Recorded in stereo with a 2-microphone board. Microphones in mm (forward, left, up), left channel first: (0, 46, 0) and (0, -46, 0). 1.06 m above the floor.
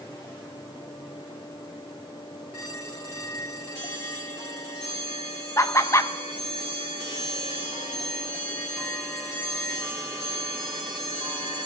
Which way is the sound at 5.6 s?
35° left (ahead or behind).